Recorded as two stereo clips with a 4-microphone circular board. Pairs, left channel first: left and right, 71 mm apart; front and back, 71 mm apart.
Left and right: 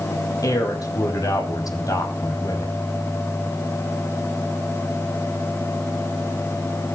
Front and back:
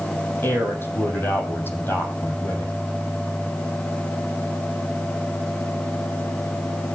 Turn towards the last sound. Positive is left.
turn(degrees=60)